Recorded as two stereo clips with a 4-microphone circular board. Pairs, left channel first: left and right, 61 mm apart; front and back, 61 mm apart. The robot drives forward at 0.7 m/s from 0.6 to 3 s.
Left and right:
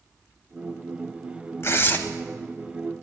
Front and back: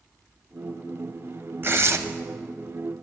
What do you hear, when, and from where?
1.6 s tearing paper: 130° left, 0.7 m; by 2.0 s 140° left, 0.9 m